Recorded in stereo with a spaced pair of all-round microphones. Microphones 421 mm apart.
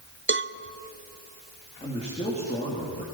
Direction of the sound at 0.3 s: 30° right (ahead or behind).